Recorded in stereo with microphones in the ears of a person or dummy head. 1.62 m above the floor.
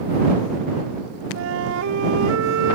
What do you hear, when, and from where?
1.4 s a flute: 75° right (ahead or behind)